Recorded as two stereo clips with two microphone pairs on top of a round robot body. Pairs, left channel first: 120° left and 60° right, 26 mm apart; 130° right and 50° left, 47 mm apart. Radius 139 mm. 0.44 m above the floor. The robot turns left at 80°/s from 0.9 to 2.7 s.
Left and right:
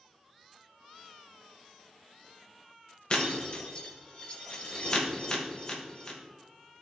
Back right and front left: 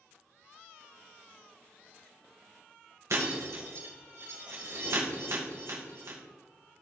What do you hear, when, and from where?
3.1 s breaking glass: 75° left, 1.9 m